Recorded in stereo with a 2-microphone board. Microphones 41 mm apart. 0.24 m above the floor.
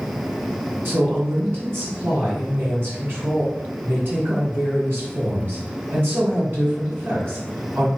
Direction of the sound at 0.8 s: 60° right (ahead or behind).